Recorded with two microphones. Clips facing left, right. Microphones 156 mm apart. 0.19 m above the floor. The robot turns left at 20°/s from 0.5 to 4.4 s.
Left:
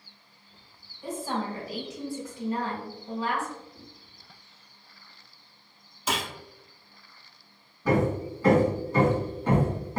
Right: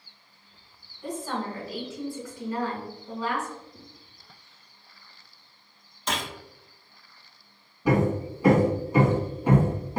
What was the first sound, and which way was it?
A woman speaking, 170° left.